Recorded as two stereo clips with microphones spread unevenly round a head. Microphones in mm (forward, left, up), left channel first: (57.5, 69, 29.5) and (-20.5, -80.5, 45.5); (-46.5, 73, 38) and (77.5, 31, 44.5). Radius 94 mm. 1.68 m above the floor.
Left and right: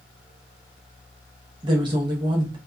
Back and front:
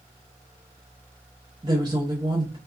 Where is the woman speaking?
70° right, 0.8 m.